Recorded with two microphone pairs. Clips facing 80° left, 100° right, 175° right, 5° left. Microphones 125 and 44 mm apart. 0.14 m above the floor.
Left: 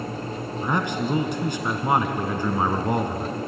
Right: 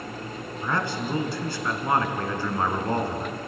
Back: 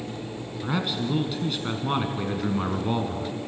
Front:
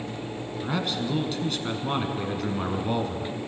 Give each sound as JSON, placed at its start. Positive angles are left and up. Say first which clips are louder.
{"t": 0.6, "sound": "a man speaking", "louder": "left 3 dB, back 1 dB", "azimuth_deg": 115, "distance_m": 1.5}